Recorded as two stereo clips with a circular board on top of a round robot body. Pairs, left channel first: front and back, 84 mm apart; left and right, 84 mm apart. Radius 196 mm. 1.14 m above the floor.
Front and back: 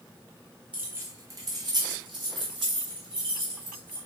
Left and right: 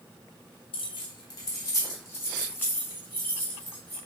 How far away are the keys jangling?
About 0.7 m.